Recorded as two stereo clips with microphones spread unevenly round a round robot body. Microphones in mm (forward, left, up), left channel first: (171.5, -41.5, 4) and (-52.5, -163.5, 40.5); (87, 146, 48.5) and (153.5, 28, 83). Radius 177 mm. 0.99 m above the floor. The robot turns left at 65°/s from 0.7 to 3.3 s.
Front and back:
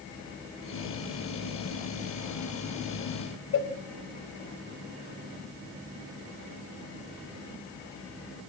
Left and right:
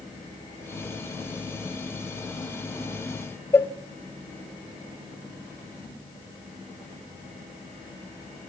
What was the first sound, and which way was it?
A cowbell, 55° left.